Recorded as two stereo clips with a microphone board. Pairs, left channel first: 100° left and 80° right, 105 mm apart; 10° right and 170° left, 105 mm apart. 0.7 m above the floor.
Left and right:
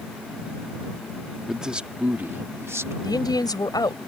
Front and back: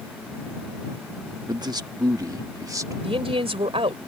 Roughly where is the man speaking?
Behind.